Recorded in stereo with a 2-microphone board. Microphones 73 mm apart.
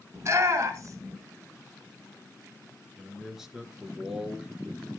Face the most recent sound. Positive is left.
turn(degrees=-5)  # may be behind; listen again after turning